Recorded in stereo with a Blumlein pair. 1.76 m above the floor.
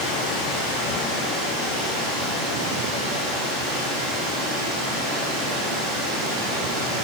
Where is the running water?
20° right, 3.5 m.